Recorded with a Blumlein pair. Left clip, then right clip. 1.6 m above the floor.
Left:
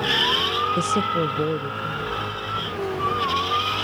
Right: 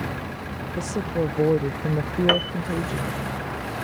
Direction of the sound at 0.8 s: 20° left.